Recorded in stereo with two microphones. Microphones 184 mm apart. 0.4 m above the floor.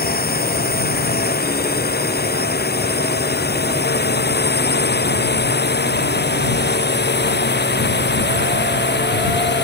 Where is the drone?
55° left (ahead or behind); by 9.7 s 70° left (ahead or behind).